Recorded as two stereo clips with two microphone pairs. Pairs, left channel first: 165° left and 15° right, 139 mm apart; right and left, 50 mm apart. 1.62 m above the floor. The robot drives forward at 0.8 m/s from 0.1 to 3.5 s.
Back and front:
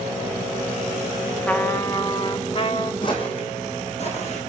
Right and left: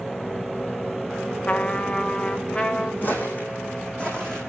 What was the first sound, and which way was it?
A trumpet, 125° right.